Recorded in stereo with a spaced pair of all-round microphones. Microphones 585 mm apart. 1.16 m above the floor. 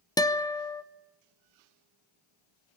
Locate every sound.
0.2 s a guitar: 5° left (ahead or behind), 0.6 m